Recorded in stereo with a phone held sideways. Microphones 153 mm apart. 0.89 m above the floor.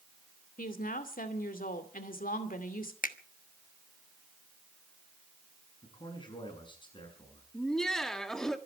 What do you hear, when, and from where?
0.6 s a woman speaking: 75° left (ahead or behind), 2.5 m
3.0 s a finger snap: 70° left (ahead or behind), 1.2 m
5.8 s a man speaking: 35° left (ahead or behind), 7.5 m
7.5 s laughter: 5° left (ahead or behind), 1.7 m